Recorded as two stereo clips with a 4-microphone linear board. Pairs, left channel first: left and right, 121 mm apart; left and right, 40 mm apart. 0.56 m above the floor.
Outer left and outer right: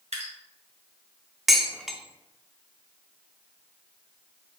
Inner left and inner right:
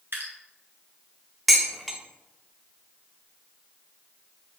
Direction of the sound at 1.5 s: Centre (ahead or behind).